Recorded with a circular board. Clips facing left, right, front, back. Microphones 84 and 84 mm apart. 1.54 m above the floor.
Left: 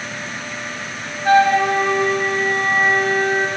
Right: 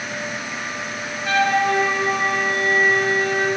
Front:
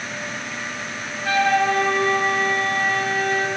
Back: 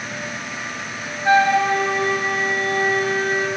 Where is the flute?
125° left, 1.9 m.